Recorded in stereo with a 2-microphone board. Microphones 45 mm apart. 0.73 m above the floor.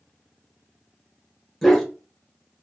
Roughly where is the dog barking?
Centre.